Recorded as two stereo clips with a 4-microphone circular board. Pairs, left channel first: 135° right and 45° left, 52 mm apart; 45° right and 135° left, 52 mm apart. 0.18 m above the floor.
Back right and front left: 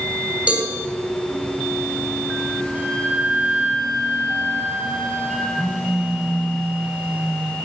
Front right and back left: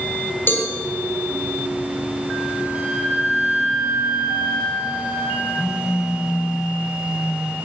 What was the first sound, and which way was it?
A cowbell, 15° right.